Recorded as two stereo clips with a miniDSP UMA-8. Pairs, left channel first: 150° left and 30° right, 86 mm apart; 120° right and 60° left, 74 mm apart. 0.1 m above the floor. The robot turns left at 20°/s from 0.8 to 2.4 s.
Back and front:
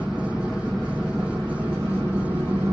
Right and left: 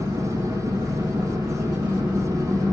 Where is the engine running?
60° left, 4.5 m; by 2.7 s 30° left, 4.5 m.